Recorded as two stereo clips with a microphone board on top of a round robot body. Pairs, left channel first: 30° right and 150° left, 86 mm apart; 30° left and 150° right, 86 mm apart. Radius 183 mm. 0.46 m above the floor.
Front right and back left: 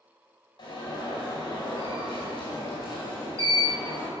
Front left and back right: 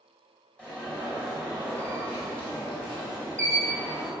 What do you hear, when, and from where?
0.6 s an alarm: 50° right, 4.5 m